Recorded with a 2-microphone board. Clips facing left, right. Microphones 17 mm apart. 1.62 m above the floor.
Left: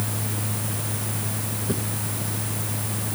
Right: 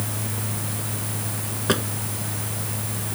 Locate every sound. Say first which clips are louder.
1.7 s a drawer: right 7 dB; 60° right (ahead or behind)